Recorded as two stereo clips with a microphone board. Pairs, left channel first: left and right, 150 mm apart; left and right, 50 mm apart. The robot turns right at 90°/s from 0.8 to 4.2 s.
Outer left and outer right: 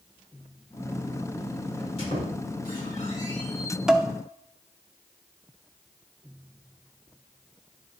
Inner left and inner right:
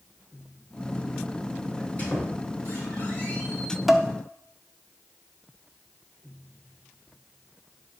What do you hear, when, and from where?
1.8 s a squeak: 15° left (ahead or behind), 5 m; by 3.8 s 15° right (ahead or behind), 5 m
3.9 s dishes clattering: 5° right (ahead or behind), 0.7 m; by 4.1 s 20° right (ahead or behind), 0.7 m